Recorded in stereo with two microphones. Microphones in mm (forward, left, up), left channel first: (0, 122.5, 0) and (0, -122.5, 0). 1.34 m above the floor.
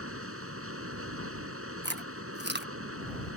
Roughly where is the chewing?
Right.